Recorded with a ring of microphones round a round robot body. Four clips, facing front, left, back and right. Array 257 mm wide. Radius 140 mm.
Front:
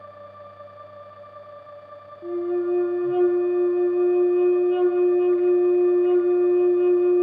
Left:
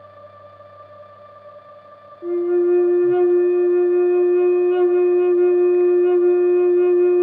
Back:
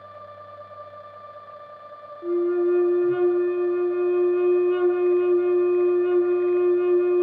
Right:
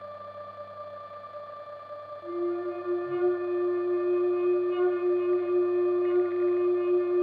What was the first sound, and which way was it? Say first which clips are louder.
A flute: left 13 dB, back 3 dB; 110° left.